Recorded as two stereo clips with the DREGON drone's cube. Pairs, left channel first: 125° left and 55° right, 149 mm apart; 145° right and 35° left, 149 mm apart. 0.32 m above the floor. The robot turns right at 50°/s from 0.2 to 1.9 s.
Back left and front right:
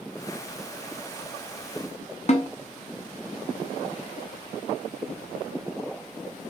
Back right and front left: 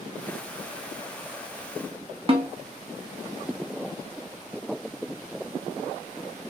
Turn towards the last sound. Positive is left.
turn(degrees=85)